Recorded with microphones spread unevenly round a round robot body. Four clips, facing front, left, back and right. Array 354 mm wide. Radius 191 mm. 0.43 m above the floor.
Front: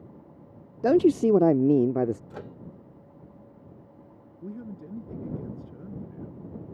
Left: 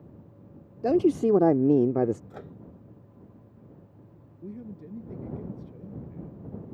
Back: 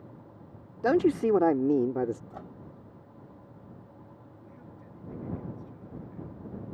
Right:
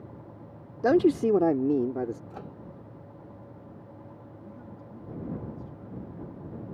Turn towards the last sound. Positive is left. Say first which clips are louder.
# left 8 dB, front 14 dB
turn(degrees=25)